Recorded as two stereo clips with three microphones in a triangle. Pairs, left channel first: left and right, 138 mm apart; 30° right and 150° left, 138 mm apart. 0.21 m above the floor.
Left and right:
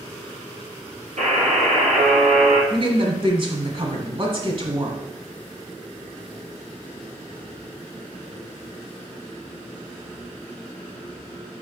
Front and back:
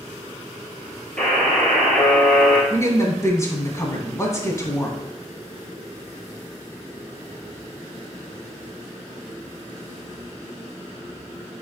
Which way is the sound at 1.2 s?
110° right.